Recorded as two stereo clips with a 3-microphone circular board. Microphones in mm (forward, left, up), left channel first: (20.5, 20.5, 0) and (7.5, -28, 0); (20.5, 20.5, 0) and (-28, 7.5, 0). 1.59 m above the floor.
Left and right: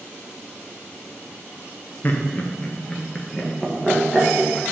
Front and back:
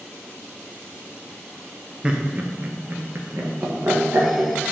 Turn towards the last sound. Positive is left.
turn(degrees=170)